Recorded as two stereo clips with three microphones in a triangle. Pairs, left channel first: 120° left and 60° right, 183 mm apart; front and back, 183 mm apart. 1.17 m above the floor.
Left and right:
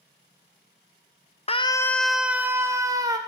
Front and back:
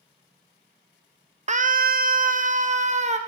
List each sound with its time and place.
1.5 s a scream: 155° left, 0.6 m; by 3.2 s 130° right, 1.8 m